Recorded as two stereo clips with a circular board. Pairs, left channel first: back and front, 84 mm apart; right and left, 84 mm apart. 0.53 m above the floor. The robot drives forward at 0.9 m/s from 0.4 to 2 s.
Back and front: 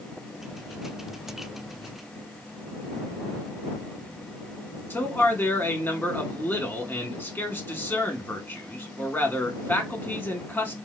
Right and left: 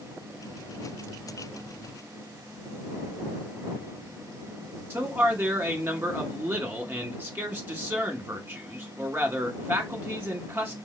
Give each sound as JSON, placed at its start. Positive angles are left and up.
{"t": 4.9, "sound": "a man speaking", "azimuth_deg": 140, "distance_m": 0.9}